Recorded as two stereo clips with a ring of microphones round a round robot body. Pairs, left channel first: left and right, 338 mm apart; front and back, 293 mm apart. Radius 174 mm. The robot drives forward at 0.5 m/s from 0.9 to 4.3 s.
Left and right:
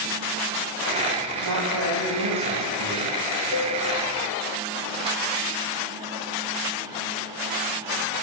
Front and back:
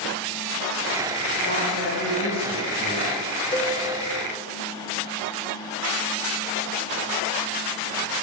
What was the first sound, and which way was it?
A woman speaking, 50° right.